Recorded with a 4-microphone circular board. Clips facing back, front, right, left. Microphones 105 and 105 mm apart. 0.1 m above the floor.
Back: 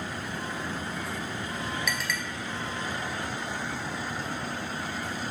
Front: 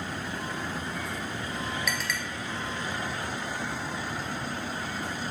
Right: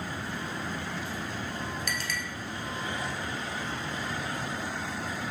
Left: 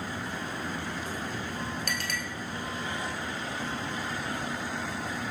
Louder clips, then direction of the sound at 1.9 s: Even, even; 90° left.